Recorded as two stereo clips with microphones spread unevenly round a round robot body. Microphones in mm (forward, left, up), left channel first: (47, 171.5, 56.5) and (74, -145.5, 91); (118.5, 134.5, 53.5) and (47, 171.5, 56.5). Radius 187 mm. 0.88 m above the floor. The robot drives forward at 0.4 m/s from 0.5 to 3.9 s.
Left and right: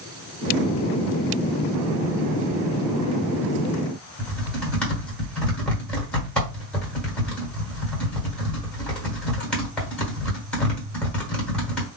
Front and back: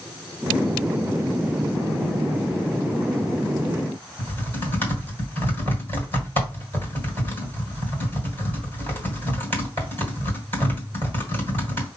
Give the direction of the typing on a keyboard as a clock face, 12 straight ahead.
6 o'clock.